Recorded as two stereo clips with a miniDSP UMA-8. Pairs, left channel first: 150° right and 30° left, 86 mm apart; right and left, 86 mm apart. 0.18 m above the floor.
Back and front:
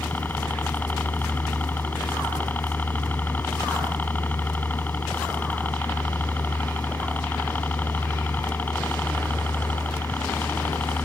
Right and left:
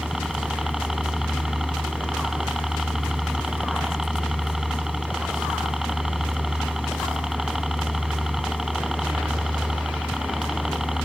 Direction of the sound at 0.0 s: 170° left.